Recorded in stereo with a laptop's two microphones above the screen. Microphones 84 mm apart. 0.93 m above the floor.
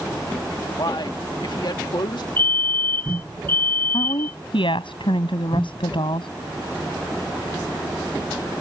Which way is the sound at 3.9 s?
85° left.